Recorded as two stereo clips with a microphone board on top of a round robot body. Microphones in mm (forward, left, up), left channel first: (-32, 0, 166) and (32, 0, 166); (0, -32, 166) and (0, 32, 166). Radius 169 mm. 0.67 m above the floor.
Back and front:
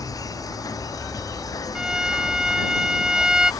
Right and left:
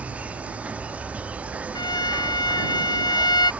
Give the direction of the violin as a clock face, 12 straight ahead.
3 o'clock.